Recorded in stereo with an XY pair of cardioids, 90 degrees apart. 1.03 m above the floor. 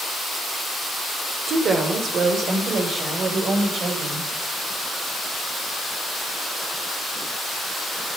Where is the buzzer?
I don't hear a buzzer.